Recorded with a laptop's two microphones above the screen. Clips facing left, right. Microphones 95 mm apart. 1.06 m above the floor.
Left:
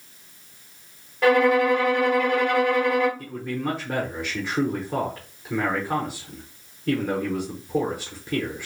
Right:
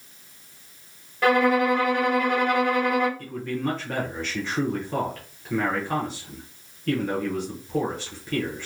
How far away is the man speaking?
About 0.9 m.